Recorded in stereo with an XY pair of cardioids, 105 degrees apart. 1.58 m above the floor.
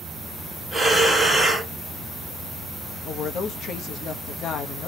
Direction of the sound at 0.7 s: 10° right.